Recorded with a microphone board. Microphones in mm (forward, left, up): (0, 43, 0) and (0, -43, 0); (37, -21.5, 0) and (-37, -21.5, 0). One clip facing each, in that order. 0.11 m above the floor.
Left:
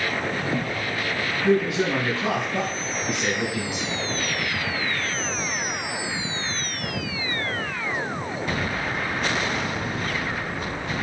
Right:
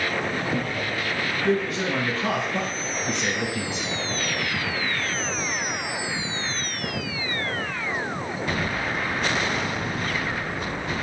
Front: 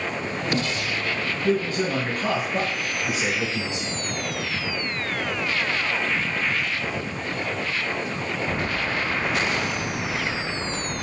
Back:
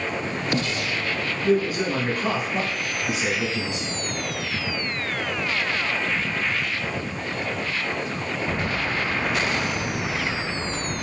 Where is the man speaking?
140° left, 1.4 m; by 4.0 s 10° left, 1.5 m.